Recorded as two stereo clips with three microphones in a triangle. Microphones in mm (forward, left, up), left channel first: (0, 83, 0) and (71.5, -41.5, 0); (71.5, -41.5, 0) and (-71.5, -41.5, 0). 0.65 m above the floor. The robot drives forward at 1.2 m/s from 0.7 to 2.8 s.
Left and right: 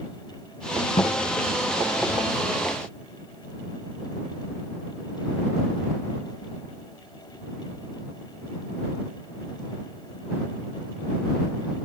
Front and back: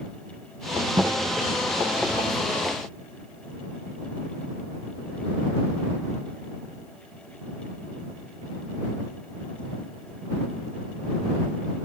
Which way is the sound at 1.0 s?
120° left.